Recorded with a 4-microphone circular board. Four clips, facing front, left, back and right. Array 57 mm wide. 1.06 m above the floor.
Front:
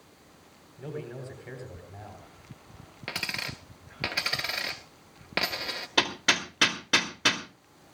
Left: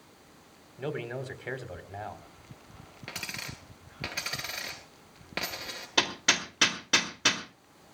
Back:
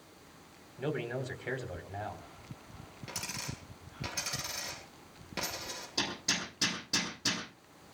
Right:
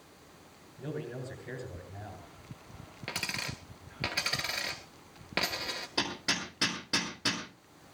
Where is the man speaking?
115° left, 4 m.